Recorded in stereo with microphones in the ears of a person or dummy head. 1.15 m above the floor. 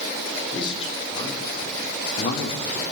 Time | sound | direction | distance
0.5 | a man speaking | 25° left (ahead or behind) | 4 m